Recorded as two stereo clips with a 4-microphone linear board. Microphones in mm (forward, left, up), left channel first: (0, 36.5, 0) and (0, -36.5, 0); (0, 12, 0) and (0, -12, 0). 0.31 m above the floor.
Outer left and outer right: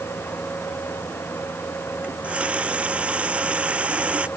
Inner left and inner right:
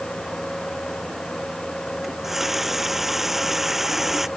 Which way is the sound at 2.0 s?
15° right (ahead or behind).